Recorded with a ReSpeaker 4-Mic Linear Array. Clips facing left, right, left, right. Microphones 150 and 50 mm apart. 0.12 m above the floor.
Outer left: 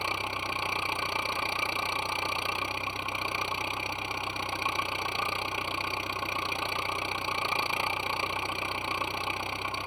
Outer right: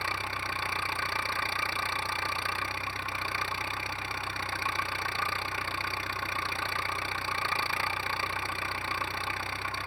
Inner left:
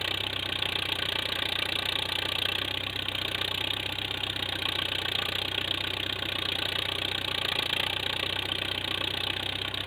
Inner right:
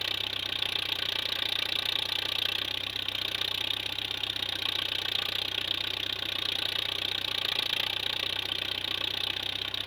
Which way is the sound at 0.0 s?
20° left (ahead or behind).